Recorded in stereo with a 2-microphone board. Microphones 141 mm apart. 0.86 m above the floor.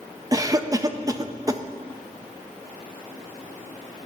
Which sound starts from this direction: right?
A cough, at 0.3 s.